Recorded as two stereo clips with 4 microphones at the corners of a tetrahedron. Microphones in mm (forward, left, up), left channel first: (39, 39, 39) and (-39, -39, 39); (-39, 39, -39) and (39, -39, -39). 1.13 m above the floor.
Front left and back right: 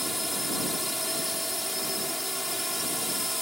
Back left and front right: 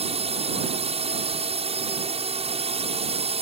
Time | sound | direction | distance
0.0 | a drone | 45° right | ?